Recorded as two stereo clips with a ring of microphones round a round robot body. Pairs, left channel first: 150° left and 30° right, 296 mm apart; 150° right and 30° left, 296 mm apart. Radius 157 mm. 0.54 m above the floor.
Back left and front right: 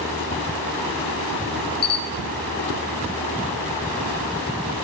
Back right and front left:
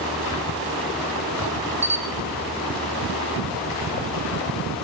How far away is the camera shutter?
About 0.9 m.